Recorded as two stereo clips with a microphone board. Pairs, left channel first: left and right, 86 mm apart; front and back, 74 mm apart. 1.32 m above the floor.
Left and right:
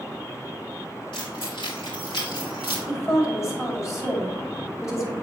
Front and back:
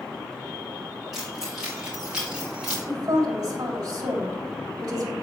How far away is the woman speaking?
About 3 m.